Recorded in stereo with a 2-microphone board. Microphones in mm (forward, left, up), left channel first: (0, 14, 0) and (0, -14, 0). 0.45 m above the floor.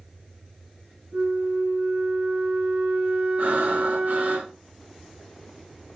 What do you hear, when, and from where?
1.1 s a flute: 75° right (ahead or behind), 4.5 m
3.4 s breathing: 75° right (ahead or behind), 4 m